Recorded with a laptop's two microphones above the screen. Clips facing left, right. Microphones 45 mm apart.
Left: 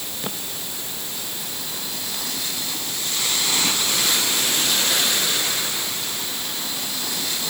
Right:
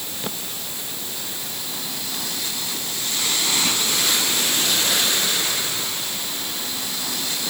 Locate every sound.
Only background noise.